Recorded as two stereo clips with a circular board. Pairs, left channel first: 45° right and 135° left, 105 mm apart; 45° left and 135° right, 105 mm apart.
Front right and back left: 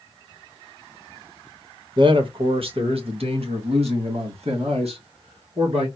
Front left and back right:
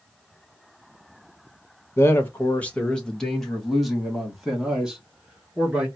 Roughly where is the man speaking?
Left.